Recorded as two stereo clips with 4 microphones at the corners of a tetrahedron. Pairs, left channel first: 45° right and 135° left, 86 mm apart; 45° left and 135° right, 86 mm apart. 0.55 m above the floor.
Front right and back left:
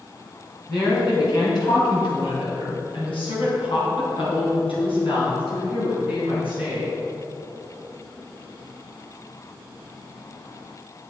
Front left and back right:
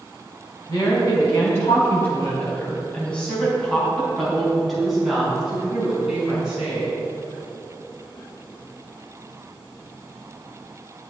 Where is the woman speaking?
Straight ahead, 3.5 m; by 7.0 s 55° right, 7 m.